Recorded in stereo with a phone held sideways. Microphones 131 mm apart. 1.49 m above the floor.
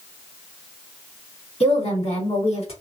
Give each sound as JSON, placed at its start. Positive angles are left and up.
{"t": 1.6, "sound": "a woman speaking", "side_deg": 50, "distance_m": 1.4}